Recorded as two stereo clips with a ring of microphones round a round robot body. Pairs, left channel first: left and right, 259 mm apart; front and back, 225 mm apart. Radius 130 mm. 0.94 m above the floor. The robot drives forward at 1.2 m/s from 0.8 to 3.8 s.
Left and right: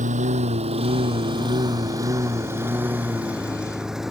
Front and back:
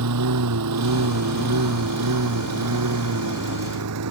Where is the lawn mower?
155° right; by 4.1 s straight behind.